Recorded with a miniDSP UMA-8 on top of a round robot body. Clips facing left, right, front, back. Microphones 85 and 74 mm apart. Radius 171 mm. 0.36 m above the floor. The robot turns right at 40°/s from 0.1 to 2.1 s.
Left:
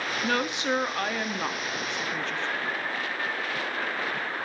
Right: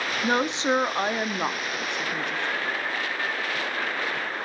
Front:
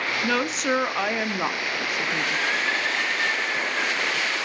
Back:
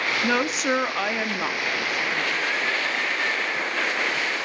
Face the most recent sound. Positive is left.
turn(degrees=-35)